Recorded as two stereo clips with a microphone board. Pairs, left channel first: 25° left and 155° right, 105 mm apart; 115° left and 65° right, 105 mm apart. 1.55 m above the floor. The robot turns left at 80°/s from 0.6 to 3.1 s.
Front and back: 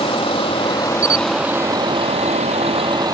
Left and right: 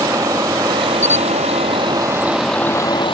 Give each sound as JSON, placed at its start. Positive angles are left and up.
{"t": 0.0, "sound": "a vehicle", "azimuth_deg": -10}
{"t": 1.0, "sound": "a camera shutter", "azimuth_deg": -175}